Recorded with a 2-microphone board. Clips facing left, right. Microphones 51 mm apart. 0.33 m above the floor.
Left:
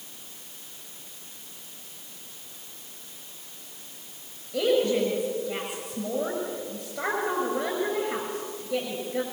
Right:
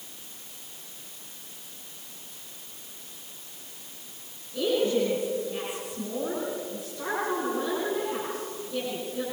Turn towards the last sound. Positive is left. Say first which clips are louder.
# left 2 dB
turn(degrees=70)  # may be behind; listen again after turning